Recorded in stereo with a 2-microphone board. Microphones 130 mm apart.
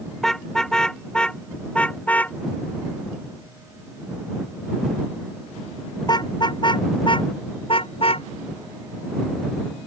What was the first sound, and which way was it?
A car horn, 5° left (ahead or behind).